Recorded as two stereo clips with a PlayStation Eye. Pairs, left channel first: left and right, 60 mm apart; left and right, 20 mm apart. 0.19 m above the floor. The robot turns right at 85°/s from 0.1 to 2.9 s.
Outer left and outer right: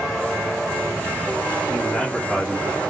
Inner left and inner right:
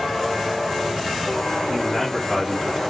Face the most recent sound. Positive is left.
turn(degrees=-115)